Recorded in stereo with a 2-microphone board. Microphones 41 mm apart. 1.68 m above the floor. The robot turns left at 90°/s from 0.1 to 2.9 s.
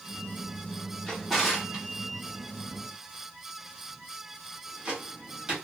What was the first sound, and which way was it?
A drawer, 15° left (ahead or behind).